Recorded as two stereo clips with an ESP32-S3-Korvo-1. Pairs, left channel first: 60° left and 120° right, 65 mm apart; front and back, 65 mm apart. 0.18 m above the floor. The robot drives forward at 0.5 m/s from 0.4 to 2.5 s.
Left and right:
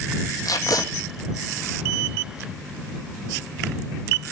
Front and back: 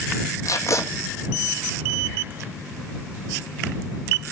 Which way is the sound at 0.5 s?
35° left.